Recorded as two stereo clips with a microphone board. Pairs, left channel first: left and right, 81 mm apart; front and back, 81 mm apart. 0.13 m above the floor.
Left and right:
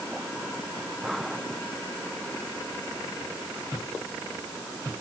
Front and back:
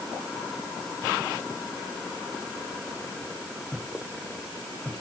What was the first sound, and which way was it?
Only background noise.